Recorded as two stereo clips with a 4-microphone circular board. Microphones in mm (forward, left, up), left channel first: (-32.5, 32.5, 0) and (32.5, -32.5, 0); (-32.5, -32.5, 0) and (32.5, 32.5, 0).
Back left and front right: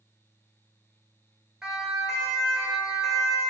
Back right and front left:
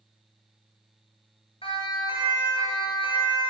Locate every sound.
1.6 s a siren: 130° right, 9 m